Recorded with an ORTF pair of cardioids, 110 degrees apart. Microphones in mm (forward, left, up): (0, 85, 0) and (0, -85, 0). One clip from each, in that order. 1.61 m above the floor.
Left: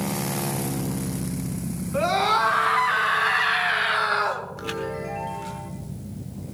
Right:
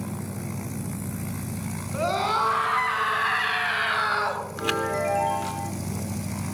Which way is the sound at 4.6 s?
30° right.